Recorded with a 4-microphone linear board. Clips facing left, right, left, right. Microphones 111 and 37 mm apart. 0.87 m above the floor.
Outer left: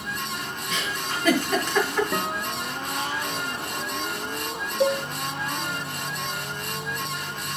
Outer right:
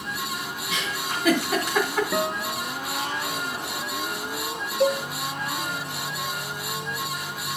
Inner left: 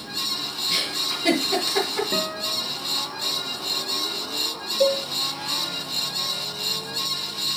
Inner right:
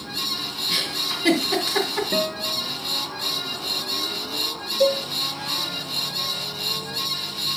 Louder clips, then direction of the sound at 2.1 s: Outer right 2 dB, inner right 2 dB; 5° left (ahead or behind).